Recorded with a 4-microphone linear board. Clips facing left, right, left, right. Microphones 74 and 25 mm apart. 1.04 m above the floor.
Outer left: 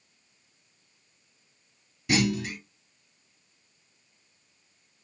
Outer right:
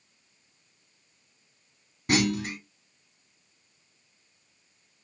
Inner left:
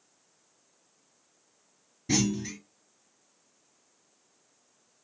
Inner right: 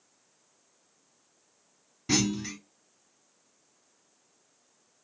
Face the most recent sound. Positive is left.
turn(degrees=-50)  # may be behind; listen again after turning